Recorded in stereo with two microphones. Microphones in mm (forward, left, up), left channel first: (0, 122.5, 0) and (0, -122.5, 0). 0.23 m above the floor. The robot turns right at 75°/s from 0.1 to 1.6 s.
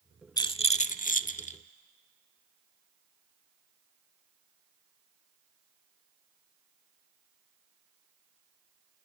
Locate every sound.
0.4 s a rattle: 30° left, 0.6 m; by 1.6 s 120° left, 0.6 m